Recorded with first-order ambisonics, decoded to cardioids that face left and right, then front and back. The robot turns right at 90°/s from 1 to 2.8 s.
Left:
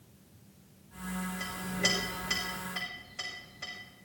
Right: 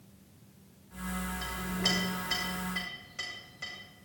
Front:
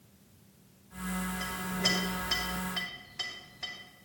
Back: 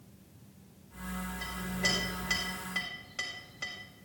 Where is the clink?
65° left, 5 m; by 3.7 s 165° right, 5 m.